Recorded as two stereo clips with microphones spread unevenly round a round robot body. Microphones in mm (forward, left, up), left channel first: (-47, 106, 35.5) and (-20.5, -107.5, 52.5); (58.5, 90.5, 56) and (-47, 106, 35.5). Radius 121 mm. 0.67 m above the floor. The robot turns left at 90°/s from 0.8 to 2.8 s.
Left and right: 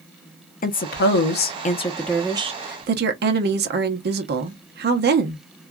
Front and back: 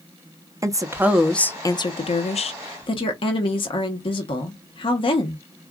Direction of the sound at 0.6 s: 130° left.